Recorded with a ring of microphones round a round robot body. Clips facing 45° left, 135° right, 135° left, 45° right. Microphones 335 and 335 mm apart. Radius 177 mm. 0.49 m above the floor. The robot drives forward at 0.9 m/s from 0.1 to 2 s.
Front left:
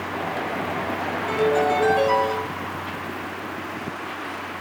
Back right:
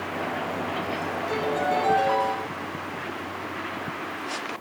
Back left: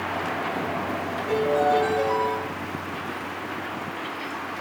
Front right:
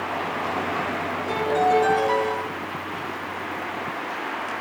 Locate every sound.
1.3 s a piano: 25° left, 5 m; by 2.4 s 30° left, 4.5 m